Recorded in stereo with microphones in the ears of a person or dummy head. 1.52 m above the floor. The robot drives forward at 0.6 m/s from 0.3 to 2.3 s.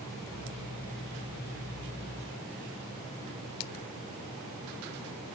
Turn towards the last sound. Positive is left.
No sound to turn to.